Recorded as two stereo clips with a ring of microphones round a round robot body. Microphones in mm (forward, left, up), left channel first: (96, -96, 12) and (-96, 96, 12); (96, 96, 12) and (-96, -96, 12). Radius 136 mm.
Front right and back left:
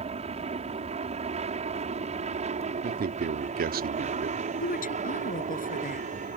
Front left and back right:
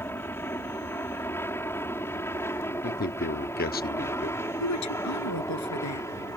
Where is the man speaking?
90° left.